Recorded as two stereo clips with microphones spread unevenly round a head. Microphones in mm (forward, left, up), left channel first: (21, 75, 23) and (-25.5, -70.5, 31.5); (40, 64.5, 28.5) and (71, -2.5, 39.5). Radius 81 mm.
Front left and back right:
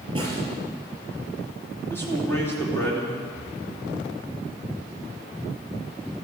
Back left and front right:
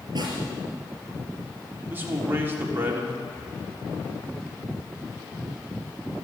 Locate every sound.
0.1 s a snare drum: 45° right, 5 m
1.9 s a man speaking: 5° right, 3.5 m
3.3 s breathing: 35° left, 5 m